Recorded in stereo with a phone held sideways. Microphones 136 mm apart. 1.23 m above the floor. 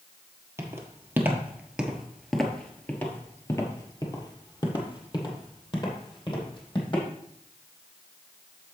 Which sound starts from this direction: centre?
Footsteps, at 0.6 s.